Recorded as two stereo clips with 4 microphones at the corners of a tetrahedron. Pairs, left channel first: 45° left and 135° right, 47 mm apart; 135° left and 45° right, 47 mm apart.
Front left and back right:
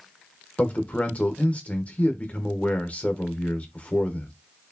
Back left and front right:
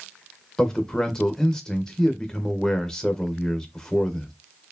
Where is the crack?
No crack in this recording.